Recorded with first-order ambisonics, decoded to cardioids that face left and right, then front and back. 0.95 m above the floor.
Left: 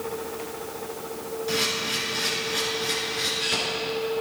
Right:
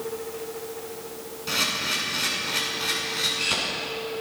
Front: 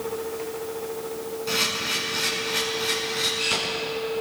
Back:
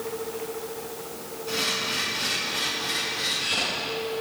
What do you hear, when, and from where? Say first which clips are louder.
1.5 s a camera shutter: right 1 dB, front 2 dB; 55° right, 8 m